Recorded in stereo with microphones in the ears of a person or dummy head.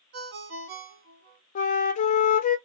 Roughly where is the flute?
Left.